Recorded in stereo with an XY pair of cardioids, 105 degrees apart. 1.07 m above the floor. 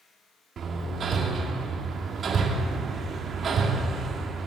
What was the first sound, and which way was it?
Hammering, 50° right.